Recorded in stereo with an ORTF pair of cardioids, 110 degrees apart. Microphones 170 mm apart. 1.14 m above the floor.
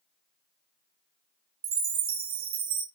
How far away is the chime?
About 1.5 m.